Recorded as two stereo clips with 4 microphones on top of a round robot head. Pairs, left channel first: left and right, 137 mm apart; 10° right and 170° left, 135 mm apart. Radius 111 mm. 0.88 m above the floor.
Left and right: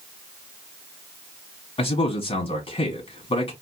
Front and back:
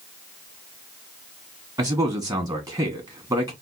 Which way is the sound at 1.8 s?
115° left.